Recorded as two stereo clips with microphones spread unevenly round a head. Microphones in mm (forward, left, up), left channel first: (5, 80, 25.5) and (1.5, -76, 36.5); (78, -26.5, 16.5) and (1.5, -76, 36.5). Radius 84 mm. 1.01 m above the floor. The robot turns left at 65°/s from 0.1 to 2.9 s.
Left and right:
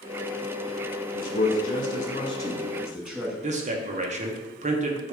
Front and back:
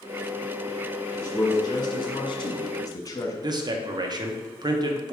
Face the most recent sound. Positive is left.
turn(degrees=-115)